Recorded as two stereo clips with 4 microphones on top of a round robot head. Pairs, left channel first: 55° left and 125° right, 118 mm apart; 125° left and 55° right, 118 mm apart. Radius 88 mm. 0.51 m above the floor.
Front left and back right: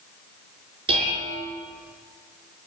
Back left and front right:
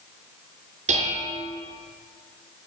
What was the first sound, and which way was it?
Dishes clattering, 80° right.